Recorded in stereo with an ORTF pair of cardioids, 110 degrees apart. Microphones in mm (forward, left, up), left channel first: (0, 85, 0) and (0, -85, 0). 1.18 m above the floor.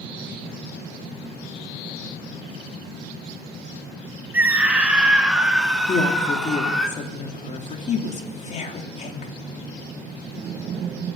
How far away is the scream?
About 2 m.